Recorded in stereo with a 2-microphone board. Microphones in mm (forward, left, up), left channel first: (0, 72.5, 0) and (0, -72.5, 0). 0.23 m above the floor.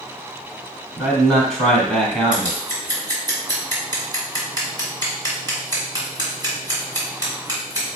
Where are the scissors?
30° right (ahead or behind), 2 m.